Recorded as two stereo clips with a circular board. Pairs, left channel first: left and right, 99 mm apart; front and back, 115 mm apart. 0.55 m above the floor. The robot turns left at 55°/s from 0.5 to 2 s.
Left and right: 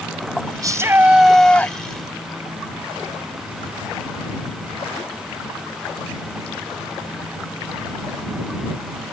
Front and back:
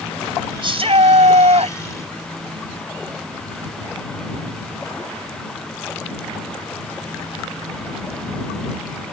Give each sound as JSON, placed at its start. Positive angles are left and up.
{"t": 0.6, "sound": "a shout", "azimuth_deg": -140}